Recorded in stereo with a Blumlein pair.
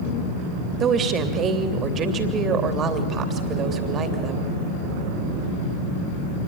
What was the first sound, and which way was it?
A woman speaking, 25° right.